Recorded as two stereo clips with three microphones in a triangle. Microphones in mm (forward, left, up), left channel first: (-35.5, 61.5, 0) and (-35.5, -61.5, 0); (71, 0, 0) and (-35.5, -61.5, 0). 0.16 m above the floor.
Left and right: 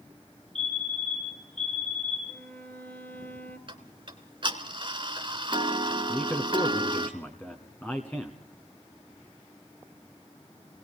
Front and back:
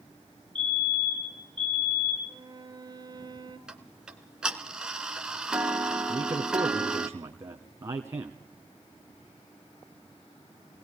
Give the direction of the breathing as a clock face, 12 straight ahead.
I don't hear breathing.